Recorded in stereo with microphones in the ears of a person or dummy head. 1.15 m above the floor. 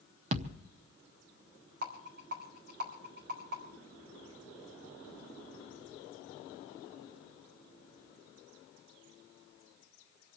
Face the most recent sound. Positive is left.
turn(degrees=-55)  # may be behind; listen again after turning